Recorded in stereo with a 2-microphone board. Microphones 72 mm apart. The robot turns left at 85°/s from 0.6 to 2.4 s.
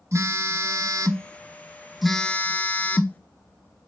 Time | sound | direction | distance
0.1 | a phone buzzing | 60° right | 0.5 m